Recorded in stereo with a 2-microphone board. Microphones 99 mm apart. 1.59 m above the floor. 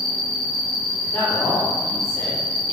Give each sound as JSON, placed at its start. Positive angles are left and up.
{"t": 0.0, "sound": "an insect", "side_deg": -35, "distance_m": 0.7}
{"t": 1.0, "sound": "a man speaking", "side_deg": 15, "distance_m": 1.9}